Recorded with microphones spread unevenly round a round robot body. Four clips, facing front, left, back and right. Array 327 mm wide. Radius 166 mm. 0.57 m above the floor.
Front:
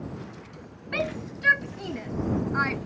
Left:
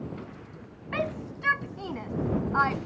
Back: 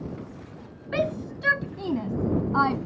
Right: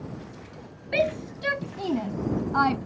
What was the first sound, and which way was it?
A shout, 150° right.